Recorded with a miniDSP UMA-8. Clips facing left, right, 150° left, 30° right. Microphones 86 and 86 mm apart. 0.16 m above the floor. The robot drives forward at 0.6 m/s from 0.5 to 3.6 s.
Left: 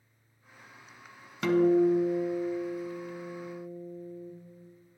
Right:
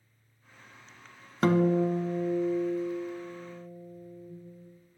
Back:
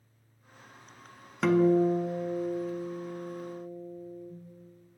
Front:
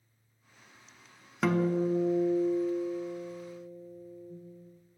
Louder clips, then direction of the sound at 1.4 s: Left 2 dB, back 5 dB; 115° right.